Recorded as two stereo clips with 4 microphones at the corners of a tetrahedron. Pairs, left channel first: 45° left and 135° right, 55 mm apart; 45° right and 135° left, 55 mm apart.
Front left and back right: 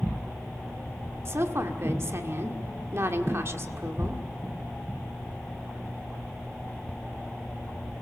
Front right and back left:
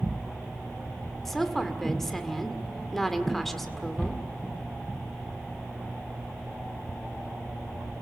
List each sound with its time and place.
1.2 s a woman speaking: 130° right, 1.8 m